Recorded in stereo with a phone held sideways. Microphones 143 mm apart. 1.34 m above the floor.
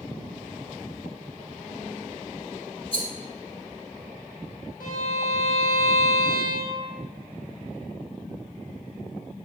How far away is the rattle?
About 1.5 m.